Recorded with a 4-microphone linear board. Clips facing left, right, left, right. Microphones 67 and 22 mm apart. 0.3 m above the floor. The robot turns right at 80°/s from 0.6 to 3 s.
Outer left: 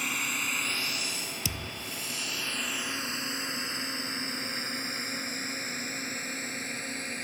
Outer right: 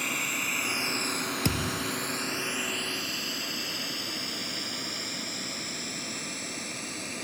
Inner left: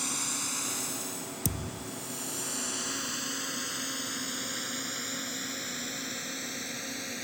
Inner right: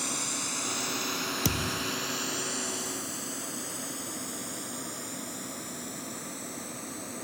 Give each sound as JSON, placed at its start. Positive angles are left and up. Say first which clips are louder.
{"t": 0.0, "sound": "a drone", "louder": "outer right 1 dB, inner right 1 dB", "side_deg": 0}
{"t": 1.4, "sound": "a thud", "louder": "outer right 8 dB, inner right 5 dB", "azimuth_deg": -140}